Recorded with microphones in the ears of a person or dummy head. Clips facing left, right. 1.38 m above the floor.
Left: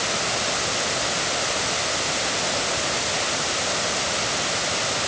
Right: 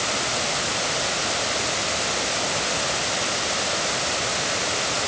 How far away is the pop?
I don't hear a pop.